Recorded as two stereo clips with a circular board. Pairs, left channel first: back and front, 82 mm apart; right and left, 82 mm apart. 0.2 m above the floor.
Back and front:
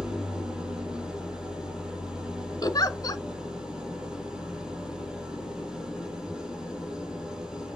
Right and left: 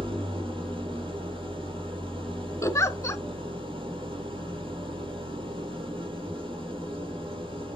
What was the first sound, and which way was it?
An engine running, 80° left.